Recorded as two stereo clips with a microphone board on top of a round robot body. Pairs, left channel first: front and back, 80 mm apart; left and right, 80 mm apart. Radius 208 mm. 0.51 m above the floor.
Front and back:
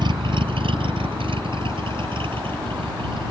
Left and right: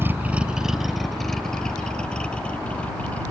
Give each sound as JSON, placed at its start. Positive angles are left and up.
{"t": 0.0, "sound": "a vehicle", "azimuth_deg": -155}